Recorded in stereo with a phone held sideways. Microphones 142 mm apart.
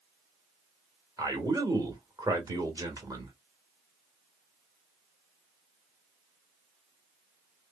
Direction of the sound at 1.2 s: 25° right (ahead or behind).